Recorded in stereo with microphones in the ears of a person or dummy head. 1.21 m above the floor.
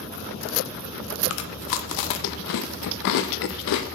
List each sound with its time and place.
1.3 s chewing: 70° left (ahead or behind), 0.6 m